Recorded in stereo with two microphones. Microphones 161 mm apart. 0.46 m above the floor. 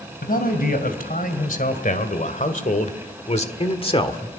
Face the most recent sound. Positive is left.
turn(degrees=30)  # may be behind; listen again after turning